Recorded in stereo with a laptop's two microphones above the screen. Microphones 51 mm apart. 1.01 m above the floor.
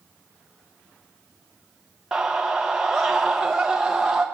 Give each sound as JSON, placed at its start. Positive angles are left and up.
{"t": 2.1, "sound": "a scream", "side_deg": -10, "distance_m": 0.7}